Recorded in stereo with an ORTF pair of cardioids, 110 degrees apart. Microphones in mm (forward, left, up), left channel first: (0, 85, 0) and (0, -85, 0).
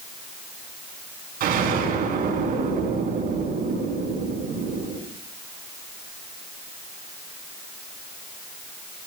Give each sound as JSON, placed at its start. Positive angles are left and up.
{"t": 1.4, "sound": "an explosion", "azimuth_deg": -65, "distance_m": 4.5}